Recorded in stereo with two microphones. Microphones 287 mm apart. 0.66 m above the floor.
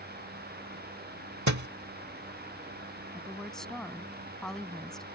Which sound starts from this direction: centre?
A woman speaking, at 3.1 s.